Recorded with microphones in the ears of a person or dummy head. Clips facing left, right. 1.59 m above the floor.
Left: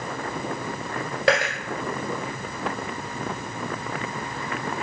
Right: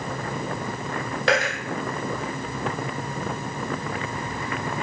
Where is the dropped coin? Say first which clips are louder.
Left 1 dB; 10° left (ahead or behind), 1.6 m.